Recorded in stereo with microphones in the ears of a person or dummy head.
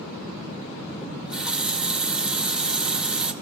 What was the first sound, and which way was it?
A running tap, 5° right (ahead or behind).